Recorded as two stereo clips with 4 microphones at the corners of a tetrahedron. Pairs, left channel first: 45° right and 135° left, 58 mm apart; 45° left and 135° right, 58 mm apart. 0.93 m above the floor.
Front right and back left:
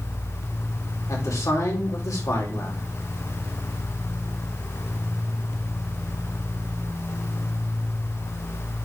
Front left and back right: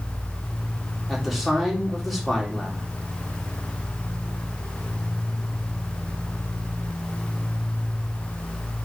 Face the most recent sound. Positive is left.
turn(degrees=-45)